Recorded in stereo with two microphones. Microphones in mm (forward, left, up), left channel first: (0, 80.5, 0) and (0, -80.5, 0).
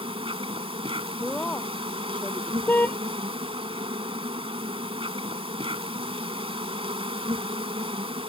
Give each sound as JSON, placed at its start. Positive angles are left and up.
{"t": 0.0, "sound": "an insect", "side_deg": -35}
{"t": 1.2, "sound": "a woman speaking", "side_deg": 5}
{"t": 2.7, "sound": "a car horn", "side_deg": 10}